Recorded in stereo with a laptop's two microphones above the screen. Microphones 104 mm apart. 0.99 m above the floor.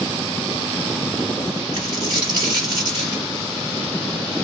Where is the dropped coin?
45° right (ahead or behind), 2 m.